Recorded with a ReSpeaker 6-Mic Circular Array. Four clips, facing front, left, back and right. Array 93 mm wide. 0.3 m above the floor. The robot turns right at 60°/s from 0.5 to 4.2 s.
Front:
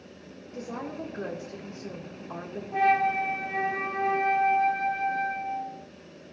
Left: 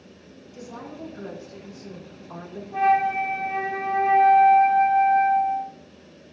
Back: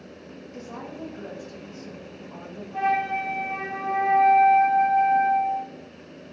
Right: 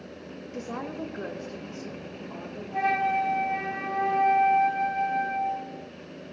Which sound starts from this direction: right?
A woman speaking, at 0.5 s.